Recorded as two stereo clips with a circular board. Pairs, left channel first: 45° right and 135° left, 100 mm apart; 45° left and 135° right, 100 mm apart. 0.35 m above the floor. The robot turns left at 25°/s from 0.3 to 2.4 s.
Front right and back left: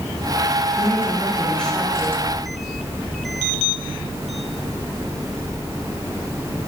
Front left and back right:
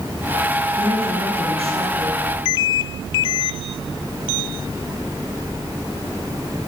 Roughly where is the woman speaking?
Right.